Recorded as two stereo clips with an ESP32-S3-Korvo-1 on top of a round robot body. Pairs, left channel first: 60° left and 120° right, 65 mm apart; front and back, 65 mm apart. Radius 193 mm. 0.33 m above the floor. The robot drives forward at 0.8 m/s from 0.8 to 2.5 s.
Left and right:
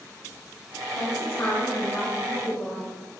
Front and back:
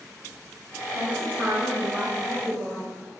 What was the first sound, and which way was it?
A woman speaking, 110° left.